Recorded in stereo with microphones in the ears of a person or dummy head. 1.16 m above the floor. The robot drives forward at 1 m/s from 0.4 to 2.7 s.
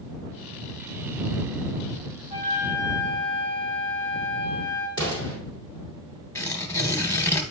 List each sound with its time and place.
2.3 s a flute: 25° right (ahead or behind), 2 m; by 4.9 s 20° right (ahead or behind), 2.5 m
5.0 s an explosion: 20° left (ahead or behind), 2.5 m
6.3 s tearing paper: 15° left (ahead or behind), 0.8 m